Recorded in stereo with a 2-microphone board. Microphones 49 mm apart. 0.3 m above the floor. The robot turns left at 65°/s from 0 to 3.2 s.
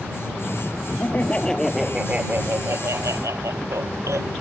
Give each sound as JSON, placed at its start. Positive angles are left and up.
{"t": 1.0, "sound": "laughter", "azimuth_deg": 45}